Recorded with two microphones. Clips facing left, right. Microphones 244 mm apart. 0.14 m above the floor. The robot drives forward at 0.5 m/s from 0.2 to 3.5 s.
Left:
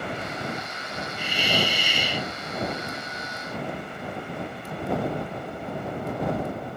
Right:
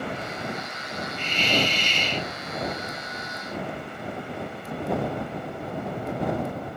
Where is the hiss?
10° left (ahead or behind).